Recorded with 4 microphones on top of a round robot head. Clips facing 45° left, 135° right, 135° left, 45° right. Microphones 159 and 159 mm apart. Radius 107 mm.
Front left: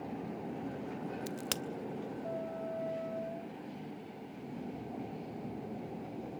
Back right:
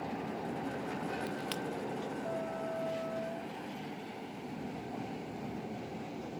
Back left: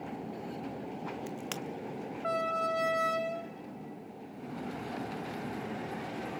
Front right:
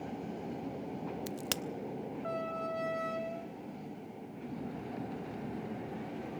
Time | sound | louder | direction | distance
1.3 | a crack | back right 2 dB, even | 5° left | 0.8 m